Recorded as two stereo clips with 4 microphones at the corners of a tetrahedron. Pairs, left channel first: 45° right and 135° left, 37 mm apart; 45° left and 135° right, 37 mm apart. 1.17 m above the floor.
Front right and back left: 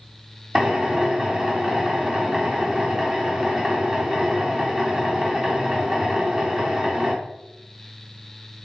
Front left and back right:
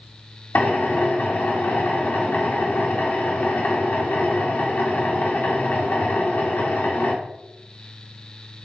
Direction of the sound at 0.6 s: 65° left.